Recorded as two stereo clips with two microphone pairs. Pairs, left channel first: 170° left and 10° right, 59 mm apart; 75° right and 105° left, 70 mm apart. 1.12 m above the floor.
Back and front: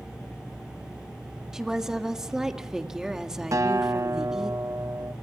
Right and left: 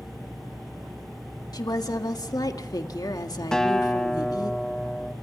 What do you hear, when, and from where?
1.5 s a woman speaking: 95° right, 1.8 m
3.5 s a guitar: 5° left, 1.2 m